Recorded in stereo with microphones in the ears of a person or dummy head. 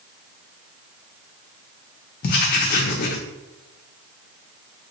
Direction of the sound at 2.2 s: 40° left (ahead or behind).